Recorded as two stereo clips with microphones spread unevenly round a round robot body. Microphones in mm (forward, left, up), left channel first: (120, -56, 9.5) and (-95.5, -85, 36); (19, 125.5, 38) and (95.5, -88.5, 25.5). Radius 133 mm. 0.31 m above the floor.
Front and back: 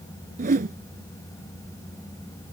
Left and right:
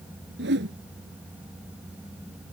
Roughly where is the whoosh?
Behind right.